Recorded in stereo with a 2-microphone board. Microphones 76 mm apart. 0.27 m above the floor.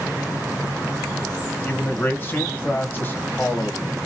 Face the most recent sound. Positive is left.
turn(degrees=25)  # may be behind; listen again after turning